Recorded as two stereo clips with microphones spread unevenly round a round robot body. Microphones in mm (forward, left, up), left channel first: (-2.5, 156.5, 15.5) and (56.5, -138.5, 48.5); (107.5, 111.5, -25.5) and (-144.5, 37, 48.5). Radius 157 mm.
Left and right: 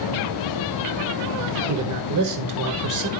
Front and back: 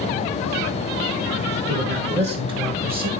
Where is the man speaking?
100° right, 1.5 m; by 3.1 s 70° right, 1.8 m.